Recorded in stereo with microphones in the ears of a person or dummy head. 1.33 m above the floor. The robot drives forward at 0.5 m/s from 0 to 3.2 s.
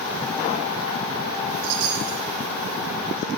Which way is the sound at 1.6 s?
75° right (ahead or behind).